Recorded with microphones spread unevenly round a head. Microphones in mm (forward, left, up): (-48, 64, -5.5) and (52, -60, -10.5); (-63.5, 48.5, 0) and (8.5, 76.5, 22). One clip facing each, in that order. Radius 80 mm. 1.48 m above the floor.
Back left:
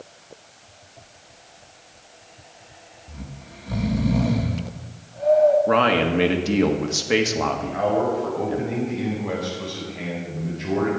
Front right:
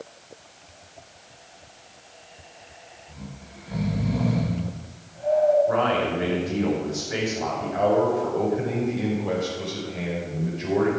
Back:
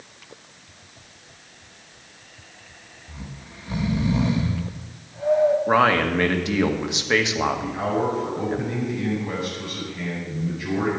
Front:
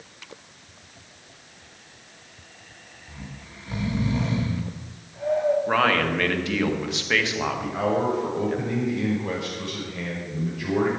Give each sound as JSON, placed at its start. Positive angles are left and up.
{"t": 3.1, "sound": "snoring", "azimuth_deg": 105, "distance_m": 2.5}
{"t": 5.7, "sound": "a man speaking", "azimuth_deg": 130, "distance_m": 1.7}
{"t": 7.6, "sound": "a man speaking", "azimuth_deg": 10, "distance_m": 5.5}